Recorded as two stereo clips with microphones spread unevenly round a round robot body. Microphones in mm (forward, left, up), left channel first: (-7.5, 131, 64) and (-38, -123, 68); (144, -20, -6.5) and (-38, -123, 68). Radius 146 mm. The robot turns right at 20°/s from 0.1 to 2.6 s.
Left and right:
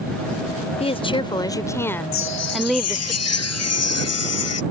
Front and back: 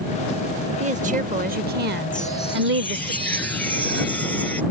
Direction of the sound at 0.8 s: 135° left.